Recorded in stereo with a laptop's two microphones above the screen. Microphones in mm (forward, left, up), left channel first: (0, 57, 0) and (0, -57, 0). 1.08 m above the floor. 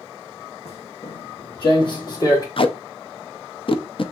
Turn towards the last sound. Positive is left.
turn(degrees=50)  # may be behind; listen again after turning